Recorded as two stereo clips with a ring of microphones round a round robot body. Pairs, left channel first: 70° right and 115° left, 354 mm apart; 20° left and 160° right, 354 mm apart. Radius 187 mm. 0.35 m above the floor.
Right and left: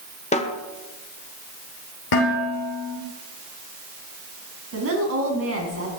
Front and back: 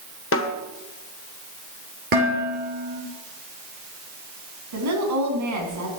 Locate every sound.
0.3 s a snare drum: 5° right, 1.5 m
2.1 s dishes clattering: 95° right, 5.5 m
4.7 s a woman speaking: 165° left, 4.5 m